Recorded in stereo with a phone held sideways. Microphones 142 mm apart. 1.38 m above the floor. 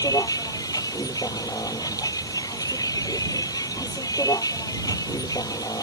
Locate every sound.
0.0 s a vehicle: 25° left (ahead or behind)